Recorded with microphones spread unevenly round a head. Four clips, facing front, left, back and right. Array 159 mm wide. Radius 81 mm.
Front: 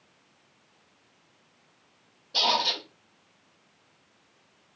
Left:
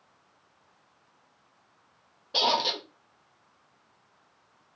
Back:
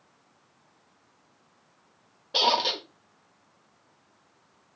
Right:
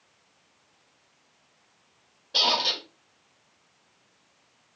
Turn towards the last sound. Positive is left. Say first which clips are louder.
# left 1 dB, back 2 dB
turn(degrees=160)